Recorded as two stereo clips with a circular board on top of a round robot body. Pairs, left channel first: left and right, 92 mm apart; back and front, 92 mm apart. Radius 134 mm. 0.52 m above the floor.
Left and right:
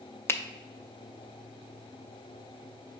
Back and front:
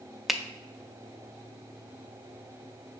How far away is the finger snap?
About 0.5 m.